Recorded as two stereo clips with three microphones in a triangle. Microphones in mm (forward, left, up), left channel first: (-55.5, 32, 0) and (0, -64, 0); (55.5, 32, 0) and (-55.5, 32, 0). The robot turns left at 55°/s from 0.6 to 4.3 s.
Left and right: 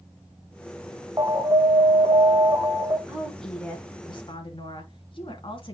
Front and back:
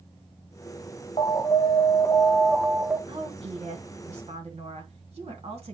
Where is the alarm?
5° right, 1.3 m; by 3.0 s 105° right, 1.3 m.